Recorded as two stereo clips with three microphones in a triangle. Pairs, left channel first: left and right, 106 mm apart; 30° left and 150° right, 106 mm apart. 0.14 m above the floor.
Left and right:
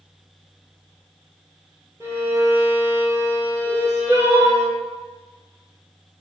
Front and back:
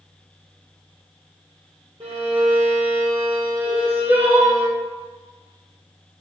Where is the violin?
155° right, 1.6 m.